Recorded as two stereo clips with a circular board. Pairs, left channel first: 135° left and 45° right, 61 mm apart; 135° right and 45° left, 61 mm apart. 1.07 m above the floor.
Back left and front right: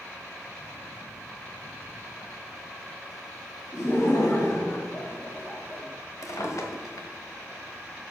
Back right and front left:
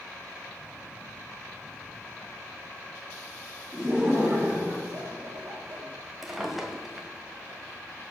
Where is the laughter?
115° left, 3 m; by 5.8 s 70° left, 2.5 m.